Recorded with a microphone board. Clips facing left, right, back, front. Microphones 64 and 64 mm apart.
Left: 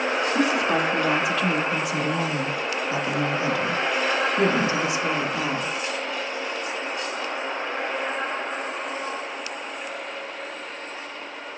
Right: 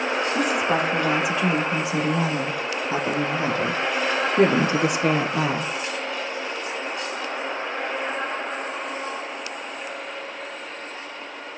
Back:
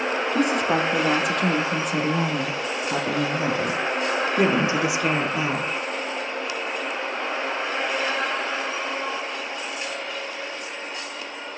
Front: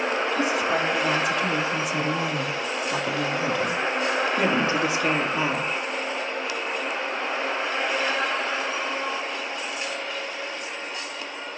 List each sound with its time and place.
0.3 s a woman speaking: 170° right, 3 m; by 5.7 s 95° right, 2.5 m